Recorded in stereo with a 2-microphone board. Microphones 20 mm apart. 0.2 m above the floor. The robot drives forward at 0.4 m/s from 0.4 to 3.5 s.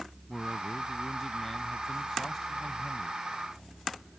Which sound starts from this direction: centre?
A man speaking, at 0.3 s.